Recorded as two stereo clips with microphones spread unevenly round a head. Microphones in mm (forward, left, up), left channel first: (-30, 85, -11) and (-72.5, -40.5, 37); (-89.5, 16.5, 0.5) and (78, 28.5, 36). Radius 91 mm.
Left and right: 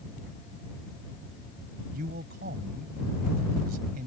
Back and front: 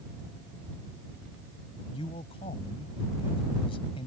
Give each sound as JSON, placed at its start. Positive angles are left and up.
{"t": 1.9, "sound": "a man speaking", "azimuth_deg": -110}